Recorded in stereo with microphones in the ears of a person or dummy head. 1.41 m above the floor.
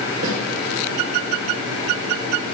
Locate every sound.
0.2 s a snare drum: 70° right (ahead or behind), 4 m